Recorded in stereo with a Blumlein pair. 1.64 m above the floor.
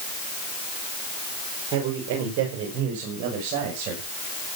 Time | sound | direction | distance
1.7 | a man speaking | 40° right | 4.5 m